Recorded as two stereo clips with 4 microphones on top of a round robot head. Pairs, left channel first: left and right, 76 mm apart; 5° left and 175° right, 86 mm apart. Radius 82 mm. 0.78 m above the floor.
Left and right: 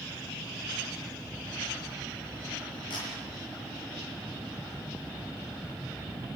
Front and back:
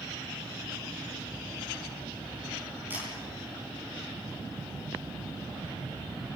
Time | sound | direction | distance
2.9 | a camera shutter | 115° left | 8.5 m